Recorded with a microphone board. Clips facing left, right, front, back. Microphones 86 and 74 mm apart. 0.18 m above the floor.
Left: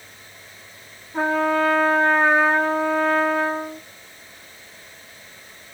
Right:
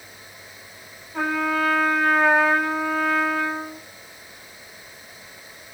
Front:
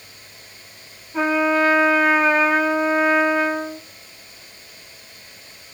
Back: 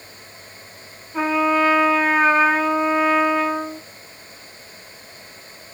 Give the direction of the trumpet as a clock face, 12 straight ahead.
9 o'clock.